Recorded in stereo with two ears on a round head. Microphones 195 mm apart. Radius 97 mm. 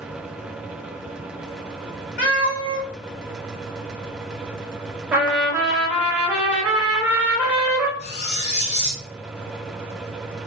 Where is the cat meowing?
55° left (ahead or behind), 1.9 m.